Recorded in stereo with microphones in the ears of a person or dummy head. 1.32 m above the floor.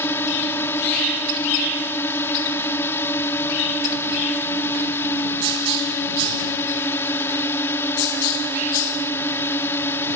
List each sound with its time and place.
0.0 s a drone: 15° left (ahead or behind)